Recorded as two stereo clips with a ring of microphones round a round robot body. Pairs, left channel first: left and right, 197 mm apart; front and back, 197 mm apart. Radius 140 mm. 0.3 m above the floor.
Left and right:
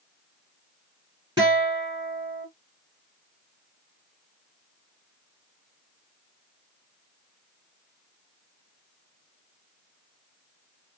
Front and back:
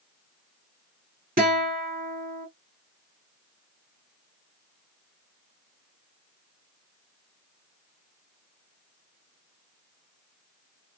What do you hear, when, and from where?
1.4 s a guitar: 155° right, 1.5 m